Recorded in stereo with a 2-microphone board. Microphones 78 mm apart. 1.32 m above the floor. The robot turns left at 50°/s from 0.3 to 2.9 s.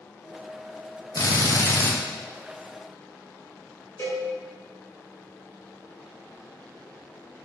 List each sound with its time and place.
1.1 s a drill: 80° left, 0.5 m; by 1.9 s 40° left, 0.5 m
4.0 s a cowbell: 40° left (ahead or behind), 1.9 m